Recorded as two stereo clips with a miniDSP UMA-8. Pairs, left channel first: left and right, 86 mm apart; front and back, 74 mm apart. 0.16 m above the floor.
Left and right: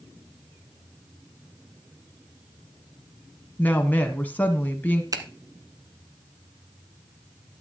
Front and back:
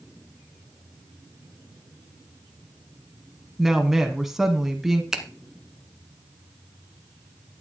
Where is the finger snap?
100° right, 1.4 m.